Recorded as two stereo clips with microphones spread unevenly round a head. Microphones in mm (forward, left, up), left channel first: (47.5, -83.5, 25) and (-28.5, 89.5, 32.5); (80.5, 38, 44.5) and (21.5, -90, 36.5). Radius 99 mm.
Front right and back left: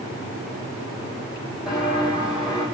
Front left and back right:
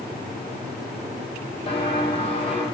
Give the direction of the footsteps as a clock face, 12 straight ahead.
11 o'clock.